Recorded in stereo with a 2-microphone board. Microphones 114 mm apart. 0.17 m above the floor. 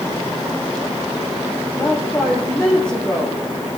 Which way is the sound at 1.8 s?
5° left (ahead or behind).